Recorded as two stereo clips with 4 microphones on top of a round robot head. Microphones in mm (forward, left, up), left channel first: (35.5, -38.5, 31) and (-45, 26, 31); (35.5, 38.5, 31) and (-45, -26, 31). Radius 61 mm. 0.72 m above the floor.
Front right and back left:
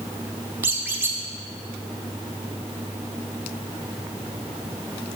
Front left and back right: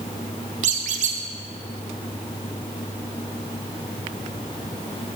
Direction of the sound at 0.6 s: 150° right.